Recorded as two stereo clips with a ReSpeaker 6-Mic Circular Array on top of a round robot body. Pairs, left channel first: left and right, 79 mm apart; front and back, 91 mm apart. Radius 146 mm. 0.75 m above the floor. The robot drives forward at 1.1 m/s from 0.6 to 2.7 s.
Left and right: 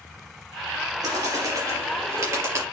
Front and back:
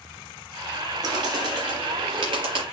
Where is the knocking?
No knocking in this recording.